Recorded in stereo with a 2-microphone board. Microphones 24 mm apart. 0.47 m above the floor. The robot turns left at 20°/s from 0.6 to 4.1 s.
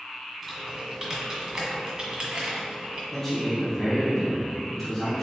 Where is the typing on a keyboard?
5° right (ahead or behind), 1.2 m; by 3.0 s 55° right (ahead or behind), 1.2 m.